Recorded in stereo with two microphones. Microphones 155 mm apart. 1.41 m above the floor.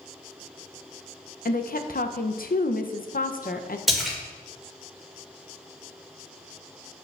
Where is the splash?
Centre (ahead or behind), 1.9 m.